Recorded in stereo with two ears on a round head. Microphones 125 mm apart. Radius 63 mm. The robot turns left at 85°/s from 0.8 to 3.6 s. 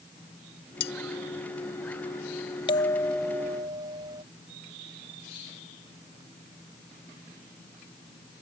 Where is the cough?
I don't hear a cough.